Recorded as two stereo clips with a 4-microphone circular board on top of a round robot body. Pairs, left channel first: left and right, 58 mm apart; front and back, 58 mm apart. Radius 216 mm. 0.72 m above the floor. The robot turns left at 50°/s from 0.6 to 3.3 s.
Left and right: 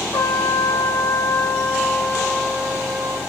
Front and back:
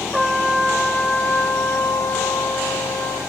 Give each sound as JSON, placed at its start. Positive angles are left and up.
{"t": 0.1, "sound": "a trumpet", "azimuth_deg": 95, "distance_m": 0.8}